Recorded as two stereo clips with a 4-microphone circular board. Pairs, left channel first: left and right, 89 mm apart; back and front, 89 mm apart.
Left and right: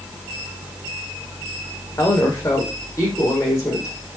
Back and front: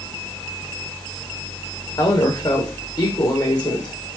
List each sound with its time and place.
2.0 s a woman speaking: 145° left, 6 m